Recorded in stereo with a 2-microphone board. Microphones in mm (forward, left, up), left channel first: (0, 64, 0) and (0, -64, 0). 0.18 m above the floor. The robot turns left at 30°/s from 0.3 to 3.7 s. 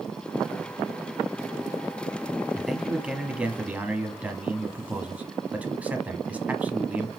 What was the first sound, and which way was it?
A man speaking, centre (ahead or behind).